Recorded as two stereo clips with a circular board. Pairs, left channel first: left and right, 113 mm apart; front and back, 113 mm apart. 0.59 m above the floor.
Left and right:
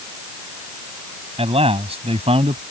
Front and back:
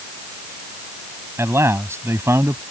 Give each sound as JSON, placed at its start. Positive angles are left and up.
{"t": 1.4, "sound": "a man speaking", "azimuth_deg": -115}